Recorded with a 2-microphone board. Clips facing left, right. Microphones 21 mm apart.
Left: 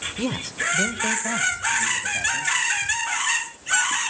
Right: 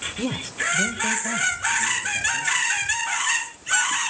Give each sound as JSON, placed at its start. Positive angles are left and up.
{"t": 0.2, "sound": "a man speaking", "side_deg": 10, "distance_m": 1.0}